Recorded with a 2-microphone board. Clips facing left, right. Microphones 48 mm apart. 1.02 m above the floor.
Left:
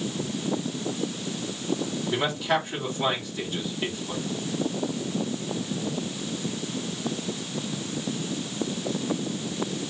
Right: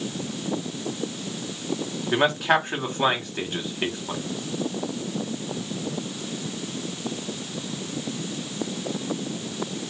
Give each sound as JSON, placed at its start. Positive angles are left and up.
{"t": 2.1, "sound": "a man speaking", "side_deg": -55, "distance_m": 1.7}